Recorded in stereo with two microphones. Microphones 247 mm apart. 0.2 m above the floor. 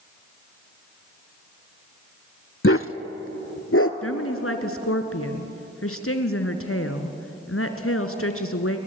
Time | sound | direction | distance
2.6 | a dog barking | 55° left (ahead or behind) | 0.7 m
4.0 | a woman speaking | 65° left (ahead or behind) | 2.5 m